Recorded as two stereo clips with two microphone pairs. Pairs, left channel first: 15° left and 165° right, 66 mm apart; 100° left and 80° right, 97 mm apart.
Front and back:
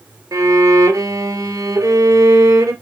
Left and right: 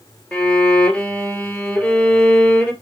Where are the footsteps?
I don't hear footsteps.